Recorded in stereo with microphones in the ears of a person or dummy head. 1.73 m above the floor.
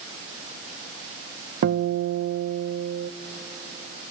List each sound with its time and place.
1.6 s a guitar: 50° right (ahead or behind), 0.6 m